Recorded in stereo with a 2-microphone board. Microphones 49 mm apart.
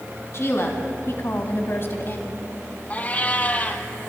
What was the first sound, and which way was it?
A woman speaking, 60° left (ahead or behind).